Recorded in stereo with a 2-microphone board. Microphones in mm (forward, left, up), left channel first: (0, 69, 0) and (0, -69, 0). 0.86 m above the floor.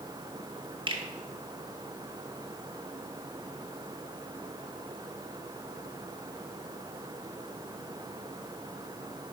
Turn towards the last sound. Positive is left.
turn(degrees=-35)  # may be behind; listen again after turning